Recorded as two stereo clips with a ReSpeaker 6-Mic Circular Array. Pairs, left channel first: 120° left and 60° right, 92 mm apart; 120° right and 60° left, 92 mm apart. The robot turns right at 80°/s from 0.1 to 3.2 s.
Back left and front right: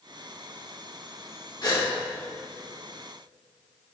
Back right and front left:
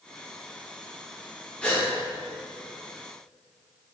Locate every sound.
1.6 s a gasp: 160° left, 1.0 m; by 1.9 s straight behind, 1.0 m